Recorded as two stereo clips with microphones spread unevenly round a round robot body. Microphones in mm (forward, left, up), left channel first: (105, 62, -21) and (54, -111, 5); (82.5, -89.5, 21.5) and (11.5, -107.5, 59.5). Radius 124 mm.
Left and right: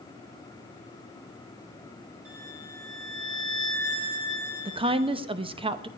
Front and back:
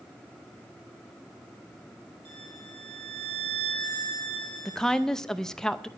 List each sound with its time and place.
2.2 s a violin: 150° right, 4.5 m
4.7 s a woman speaking: 45° right, 0.8 m